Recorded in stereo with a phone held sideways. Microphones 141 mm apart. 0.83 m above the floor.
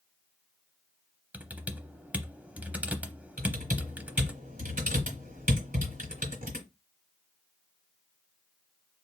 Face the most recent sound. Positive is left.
turn(degrees=-75)  # may be behind; listen again after turning